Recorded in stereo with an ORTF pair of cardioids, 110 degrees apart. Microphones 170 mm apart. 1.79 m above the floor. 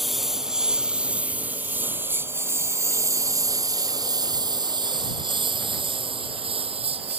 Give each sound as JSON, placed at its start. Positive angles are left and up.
{"t": 0.0, "sound": "a lawn mower", "azimuth_deg": 0}